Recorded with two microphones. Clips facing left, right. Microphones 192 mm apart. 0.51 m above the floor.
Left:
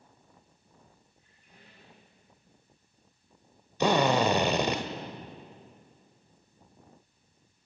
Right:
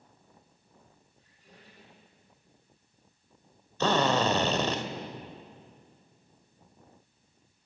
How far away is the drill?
About 1.6 m.